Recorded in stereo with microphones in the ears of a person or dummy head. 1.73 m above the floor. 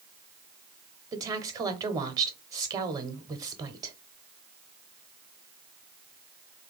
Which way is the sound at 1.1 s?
20° right (ahead or behind).